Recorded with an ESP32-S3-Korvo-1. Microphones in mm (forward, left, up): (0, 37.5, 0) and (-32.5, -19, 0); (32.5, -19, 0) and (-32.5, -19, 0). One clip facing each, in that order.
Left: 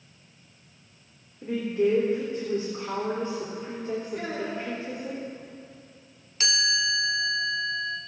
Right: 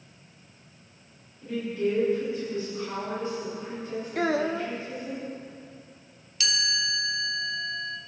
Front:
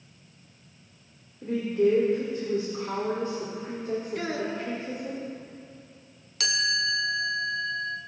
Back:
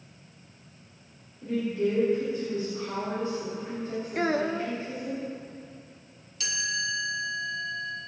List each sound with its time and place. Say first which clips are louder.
1.4 s a woman speaking: left 3 dB, front 4 dB; 25° left, 3 m
4.2 s a child speaking: right 6 dB, back 4 dB; 130° right, 1.0 m
6.4 s a chime: left 3 dB, front 4 dB; 10° left, 0.9 m